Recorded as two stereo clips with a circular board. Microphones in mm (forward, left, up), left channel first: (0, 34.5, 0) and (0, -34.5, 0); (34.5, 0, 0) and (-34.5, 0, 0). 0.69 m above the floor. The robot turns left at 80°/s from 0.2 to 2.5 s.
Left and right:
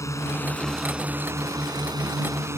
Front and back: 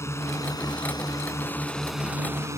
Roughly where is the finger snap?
No finger snap in this recording.